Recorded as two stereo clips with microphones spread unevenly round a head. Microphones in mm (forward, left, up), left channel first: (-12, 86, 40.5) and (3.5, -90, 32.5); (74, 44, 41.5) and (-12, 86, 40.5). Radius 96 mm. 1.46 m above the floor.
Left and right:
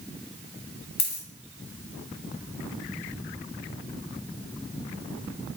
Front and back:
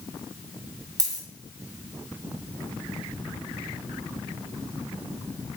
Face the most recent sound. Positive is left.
turn(degrees=115)